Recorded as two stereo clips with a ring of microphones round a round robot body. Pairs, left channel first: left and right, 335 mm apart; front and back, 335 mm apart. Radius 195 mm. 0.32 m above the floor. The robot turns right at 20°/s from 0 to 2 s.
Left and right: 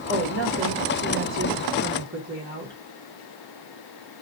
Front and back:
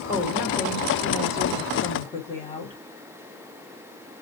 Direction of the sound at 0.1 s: 100° right.